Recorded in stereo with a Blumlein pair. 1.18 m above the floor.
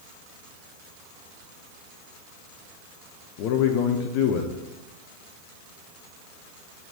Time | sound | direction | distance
3.4 | a man speaking | 40° left | 0.7 m